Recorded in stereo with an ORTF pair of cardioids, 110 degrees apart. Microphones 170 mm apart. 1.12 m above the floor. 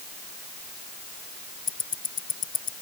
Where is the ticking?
55° left.